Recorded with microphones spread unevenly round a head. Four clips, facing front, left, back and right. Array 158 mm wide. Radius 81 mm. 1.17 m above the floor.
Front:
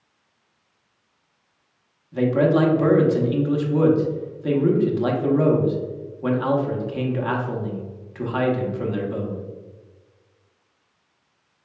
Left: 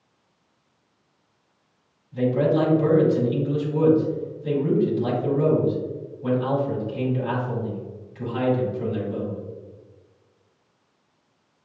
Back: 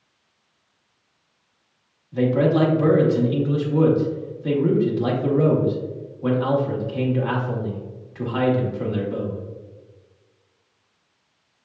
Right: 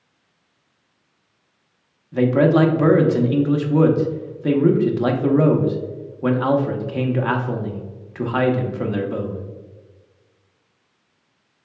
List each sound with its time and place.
2.1 s a man speaking: 85° right, 1.1 m